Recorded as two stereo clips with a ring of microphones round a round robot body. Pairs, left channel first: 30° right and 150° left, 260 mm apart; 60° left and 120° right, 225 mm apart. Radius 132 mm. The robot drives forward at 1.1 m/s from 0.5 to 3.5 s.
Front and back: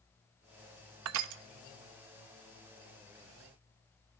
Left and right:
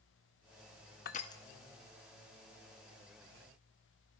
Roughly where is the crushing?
Left.